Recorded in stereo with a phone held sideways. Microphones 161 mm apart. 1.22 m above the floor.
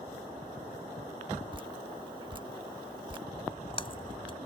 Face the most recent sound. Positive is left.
turn(degrees=35)  # may be behind; listen again after turning